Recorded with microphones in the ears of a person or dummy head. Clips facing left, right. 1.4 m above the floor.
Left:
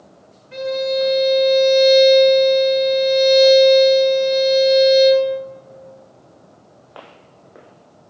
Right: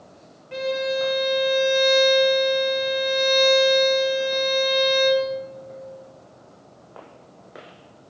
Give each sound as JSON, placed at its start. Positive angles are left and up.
{"t": 0.5, "sound": "a violin", "side_deg": -40, "distance_m": 1.0}